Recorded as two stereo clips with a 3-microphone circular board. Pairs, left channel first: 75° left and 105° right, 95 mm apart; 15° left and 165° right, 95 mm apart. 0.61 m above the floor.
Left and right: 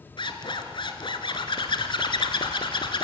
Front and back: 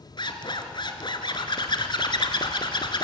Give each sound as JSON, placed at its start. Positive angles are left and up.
{"t": 0.2, "sound": "a zipper", "azimuth_deg": 50, "distance_m": 1.4}